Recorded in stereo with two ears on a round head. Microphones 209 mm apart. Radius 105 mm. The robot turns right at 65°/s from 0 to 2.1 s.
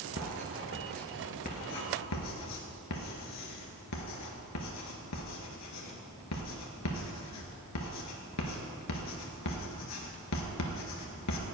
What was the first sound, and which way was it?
Writing, 45° right (ahead or behind).